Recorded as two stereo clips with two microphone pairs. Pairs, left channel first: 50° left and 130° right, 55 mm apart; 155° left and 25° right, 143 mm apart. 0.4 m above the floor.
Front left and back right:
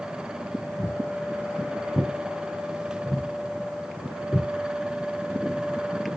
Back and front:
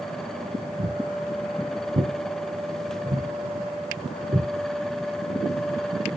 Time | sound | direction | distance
0.8 | footsteps | straight ahead | 4.5 m